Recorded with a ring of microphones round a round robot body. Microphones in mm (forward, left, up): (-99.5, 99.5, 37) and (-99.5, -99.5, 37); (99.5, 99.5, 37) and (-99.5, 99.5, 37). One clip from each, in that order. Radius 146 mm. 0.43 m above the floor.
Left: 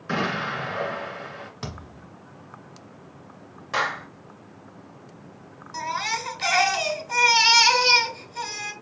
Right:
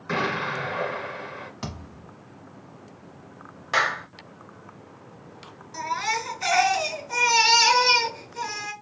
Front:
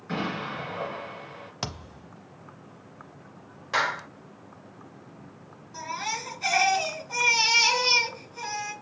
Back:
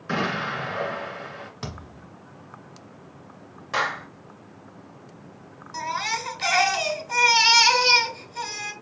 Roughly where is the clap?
Ahead right.